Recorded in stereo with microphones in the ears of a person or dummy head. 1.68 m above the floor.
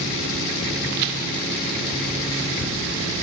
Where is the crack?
60° right (ahead or behind), 1.0 m.